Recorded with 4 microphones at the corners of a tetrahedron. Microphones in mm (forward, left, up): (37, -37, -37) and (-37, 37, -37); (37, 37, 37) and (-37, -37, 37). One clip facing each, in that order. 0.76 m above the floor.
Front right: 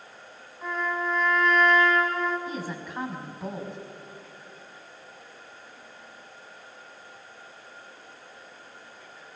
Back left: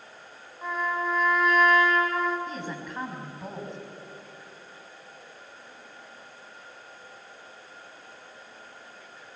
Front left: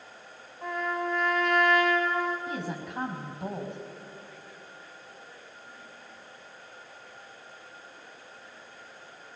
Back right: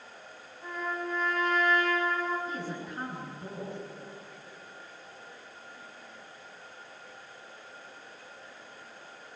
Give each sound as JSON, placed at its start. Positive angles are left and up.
{"t": 0.6, "sound": "a trumpet", "azimuth_deg": 50, "distance_m": 5.5}
{"t": 2.5, "sound": "a woman speaking", "azimuth_deg": 40, "distance_m": 5.0}